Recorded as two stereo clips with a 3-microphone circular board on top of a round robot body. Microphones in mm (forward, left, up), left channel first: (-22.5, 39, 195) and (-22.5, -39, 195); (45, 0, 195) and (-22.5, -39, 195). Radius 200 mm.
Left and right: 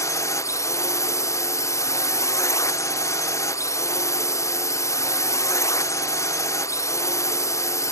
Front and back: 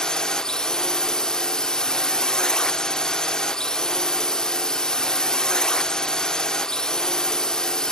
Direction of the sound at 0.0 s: 110° left.